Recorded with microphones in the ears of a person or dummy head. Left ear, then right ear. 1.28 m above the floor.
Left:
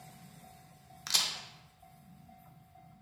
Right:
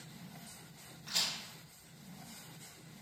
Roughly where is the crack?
Left.